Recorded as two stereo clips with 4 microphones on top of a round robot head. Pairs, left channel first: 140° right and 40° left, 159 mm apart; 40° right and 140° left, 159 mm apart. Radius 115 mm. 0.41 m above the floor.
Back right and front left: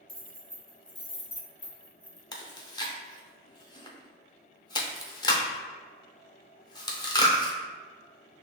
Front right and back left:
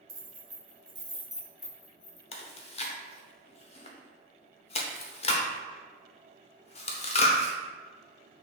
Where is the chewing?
80° right, 0.9 m.